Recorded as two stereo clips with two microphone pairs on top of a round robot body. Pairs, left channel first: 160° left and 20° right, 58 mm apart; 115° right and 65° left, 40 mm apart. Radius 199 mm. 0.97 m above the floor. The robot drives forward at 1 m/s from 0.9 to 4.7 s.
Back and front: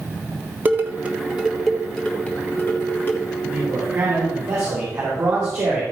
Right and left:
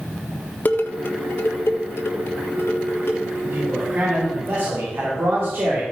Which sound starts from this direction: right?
Dishes clattering, at 0.7 s.